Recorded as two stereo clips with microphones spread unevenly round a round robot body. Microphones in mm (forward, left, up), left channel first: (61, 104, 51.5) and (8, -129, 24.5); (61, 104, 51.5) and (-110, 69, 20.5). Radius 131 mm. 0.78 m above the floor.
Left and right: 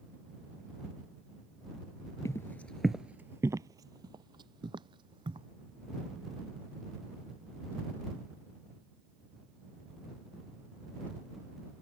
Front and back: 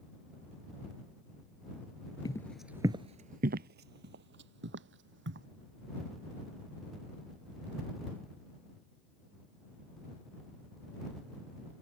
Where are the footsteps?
25° left; by 5.5 s straight behind.